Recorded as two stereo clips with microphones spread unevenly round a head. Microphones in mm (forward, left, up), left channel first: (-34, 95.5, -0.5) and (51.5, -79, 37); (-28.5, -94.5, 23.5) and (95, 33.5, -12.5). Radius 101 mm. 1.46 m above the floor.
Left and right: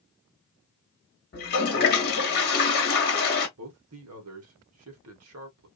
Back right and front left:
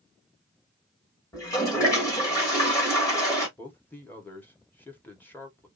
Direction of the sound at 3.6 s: 55° right.